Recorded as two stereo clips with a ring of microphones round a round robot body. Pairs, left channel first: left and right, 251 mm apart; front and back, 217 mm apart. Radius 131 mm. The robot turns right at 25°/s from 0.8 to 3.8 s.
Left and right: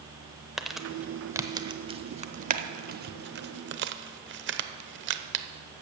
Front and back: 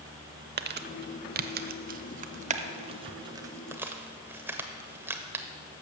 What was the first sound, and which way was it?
Crumpling, straight behind.